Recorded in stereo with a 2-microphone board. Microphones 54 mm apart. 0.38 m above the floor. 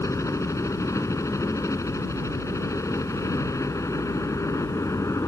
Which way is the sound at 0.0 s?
70° left (ahead or behind).